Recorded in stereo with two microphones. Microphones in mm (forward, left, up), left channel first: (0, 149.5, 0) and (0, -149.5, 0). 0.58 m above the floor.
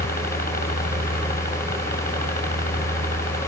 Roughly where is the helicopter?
Left.